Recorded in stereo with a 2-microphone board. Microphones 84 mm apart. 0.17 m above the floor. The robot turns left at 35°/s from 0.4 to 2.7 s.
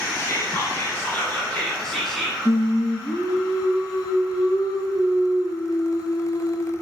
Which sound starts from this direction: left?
Singing, at 2.5 s.